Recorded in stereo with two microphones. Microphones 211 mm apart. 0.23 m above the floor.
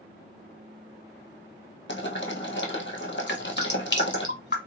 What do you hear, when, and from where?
1.9 s boiling: 60° left (ahead or behind), 1.3 m
3.3 s dripping: 60° left (ahead or behind), 1.3 m